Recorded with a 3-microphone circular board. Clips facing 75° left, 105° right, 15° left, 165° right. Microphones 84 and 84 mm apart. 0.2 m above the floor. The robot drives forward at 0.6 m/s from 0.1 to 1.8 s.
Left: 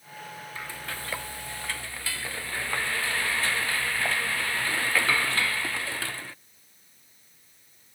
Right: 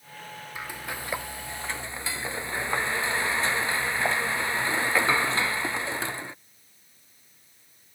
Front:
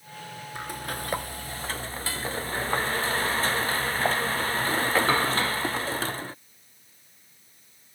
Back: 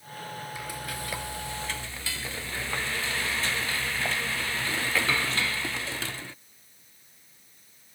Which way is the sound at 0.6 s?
30° right.